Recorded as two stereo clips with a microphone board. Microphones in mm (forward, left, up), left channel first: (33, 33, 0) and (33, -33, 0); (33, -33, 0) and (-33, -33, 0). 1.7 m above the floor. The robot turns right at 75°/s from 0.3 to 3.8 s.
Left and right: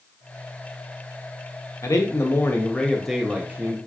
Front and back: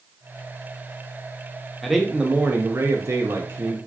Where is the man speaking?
85° left, 0.6 m; by 3.8 s 130° right, 0.6 m.